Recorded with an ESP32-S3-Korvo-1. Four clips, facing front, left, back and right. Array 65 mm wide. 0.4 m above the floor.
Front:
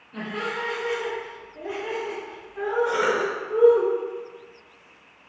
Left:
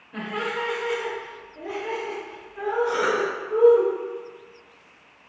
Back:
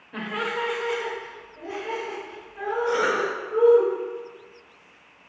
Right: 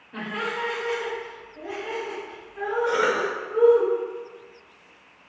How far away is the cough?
About 1.1 m.